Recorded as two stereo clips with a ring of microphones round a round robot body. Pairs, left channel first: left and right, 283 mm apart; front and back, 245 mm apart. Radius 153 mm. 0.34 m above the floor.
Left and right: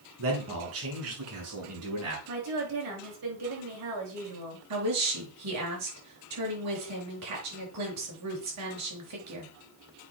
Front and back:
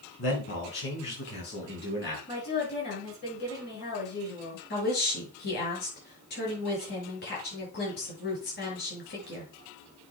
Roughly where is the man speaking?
Ahead right.